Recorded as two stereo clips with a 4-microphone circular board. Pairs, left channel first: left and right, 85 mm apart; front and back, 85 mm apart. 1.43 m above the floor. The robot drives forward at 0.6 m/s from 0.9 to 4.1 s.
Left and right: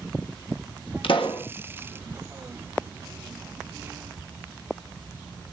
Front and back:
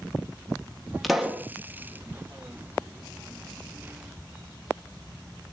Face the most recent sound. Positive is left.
turn(degrees=150)